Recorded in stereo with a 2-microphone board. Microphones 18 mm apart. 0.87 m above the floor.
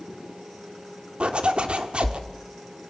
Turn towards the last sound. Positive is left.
turn(degrees=-80)